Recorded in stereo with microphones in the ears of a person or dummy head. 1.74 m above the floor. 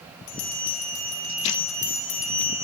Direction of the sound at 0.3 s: 60° left (ahead or behind).